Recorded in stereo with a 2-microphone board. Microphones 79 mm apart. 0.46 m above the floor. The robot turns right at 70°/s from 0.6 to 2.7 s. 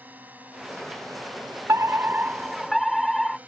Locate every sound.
0.0 s a drone: 20° right (ahead or behind)
1.7 s a fire alarm: 70° right; by 3.4 s straight ahead